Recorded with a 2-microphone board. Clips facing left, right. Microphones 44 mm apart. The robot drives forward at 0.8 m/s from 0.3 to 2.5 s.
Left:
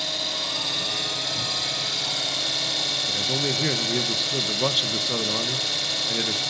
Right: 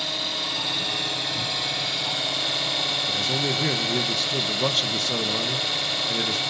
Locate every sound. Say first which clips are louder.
0.0 s an engine running: right 1 dB; 15° right (ahead or behind), 6 m; by 6.5 s 20° right (ahead or behind), 4.5 m
3.1 s a man speaking: even; 10° left (ahead or behind), 1.5 m